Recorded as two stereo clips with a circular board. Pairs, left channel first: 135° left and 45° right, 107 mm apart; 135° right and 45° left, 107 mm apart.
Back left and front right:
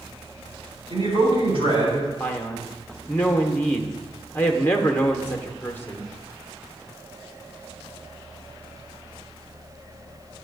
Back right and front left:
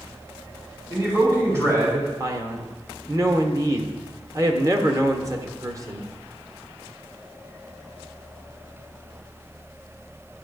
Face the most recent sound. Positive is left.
turn(degrees=75)